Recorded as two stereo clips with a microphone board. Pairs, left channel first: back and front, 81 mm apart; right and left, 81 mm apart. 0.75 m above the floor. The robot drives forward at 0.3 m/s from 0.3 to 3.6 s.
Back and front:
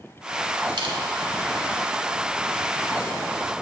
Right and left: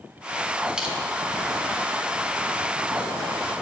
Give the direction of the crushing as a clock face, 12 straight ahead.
12 o'clock.